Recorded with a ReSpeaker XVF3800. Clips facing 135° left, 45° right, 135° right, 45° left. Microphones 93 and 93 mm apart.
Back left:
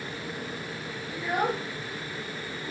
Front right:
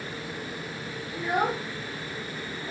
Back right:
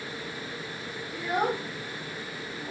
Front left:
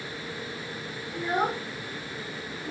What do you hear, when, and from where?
1.1 s a child speaking: 25° left, 1.3 m; by 2.7 s 50° right, 1.4 m